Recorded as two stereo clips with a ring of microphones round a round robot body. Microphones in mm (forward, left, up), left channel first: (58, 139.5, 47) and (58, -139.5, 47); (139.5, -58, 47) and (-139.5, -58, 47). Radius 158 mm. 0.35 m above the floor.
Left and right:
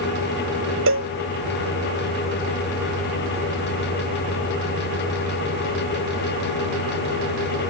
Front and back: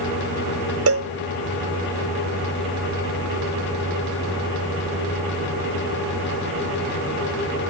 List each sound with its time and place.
0.9 s a cowbell: 140° right